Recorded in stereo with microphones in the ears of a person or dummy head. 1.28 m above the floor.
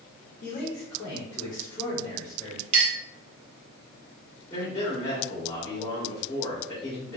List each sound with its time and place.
0.4 s a man speaking: 55° left (ahead or behind), 1.1 m; by 2.6 s 25° left (ahead or behind), 2 m
2.7 s a clink: 40° right (ahead or behind), 1.0 m
4.5 s a man speaking: 25° left (ahead or behind), 1.8 m